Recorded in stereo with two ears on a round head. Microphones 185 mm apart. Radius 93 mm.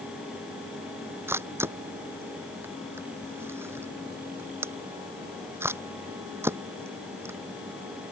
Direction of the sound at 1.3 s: 10° right (ahead or behind).